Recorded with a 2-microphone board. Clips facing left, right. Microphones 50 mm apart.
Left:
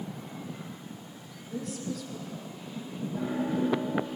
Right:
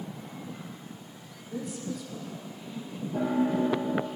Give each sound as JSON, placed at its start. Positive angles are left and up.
{"t": 1.5, "sound": "a woman speaking", "side_deg": -10, "distance_m": 6.0}
{"t": 3.1, "sound": "a piano", "side_deg": -70, "distance_m": 6.5}